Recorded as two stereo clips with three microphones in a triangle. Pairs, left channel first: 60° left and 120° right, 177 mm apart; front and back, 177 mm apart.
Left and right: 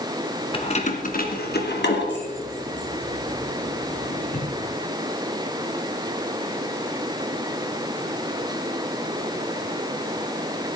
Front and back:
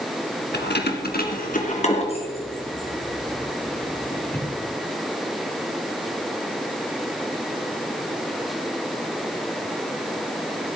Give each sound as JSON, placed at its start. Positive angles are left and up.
{"t": 0.5, "sound": "keys jangling", "azimuth_deg": 5, "distance_m": 2.0}